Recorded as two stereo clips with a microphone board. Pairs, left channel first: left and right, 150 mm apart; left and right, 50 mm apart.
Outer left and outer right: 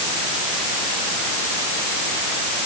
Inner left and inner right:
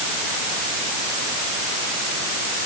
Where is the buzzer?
No buzzer in this recording.